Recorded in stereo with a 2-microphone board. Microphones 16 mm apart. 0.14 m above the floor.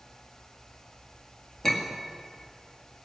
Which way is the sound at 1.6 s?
35° left (ahead or behind).